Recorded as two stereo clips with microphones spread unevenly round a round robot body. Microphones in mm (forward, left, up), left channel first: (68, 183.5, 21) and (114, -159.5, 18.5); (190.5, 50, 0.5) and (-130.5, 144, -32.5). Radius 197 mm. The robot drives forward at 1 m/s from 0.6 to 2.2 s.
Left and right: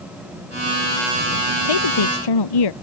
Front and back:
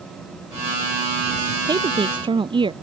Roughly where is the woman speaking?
Left.